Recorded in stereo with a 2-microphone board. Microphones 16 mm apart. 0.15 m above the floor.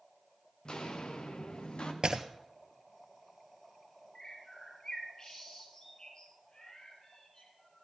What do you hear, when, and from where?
0.7 s footsteps: 55° left (ahead or behind), 2 m; by 1.9 s 80° left, 2.5 m
2.0 s breaking glass: 55° right (ahead or behind), 1.1 m
4.2 s a bird: 45° left (ahead or behind), 4 m